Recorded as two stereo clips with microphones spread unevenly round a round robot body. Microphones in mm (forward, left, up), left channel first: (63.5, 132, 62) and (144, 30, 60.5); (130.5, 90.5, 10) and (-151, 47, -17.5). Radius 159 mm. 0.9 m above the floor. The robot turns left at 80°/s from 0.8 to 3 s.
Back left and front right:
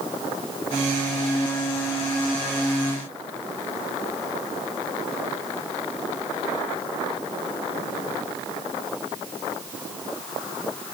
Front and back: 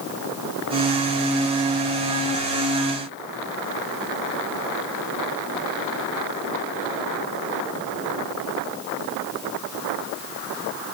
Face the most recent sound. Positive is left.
No sound to turn to.